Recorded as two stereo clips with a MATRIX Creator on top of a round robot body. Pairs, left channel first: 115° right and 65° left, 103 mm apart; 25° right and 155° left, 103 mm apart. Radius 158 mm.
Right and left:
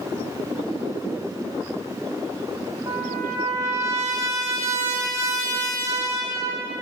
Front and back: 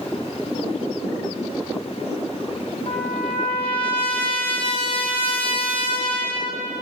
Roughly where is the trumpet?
Ahead.